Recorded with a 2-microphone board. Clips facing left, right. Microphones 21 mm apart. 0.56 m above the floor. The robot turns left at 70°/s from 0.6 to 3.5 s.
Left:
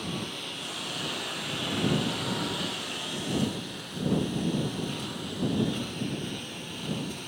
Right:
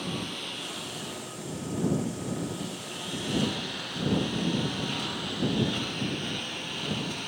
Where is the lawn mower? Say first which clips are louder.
Right 1 dB; 175° right; by 7.3 s 15° right.